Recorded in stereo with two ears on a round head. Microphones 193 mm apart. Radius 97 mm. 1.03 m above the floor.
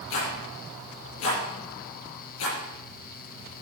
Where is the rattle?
80° left, 6.5 m.